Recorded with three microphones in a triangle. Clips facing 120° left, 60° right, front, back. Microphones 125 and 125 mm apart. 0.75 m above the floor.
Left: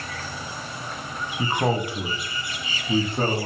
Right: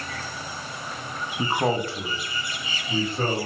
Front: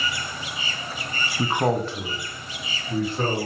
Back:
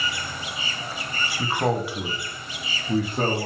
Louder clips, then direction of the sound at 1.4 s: Even, front 2 dB; 5° right.